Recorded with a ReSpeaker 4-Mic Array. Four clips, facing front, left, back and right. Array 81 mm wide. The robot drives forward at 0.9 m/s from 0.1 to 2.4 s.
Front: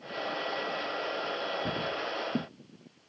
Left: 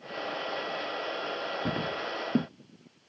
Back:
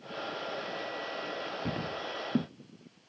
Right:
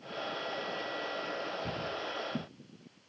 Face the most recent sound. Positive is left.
turn(degrees=100)